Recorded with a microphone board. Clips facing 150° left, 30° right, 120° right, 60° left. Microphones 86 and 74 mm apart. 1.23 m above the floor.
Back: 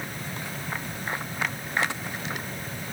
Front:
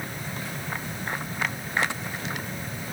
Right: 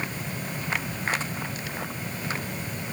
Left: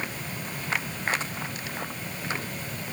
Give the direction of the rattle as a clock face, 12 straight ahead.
I don't hear a rattle.